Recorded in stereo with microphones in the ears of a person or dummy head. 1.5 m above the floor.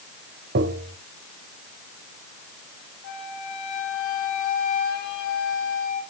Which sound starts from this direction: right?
Tapping, at 0.6 s.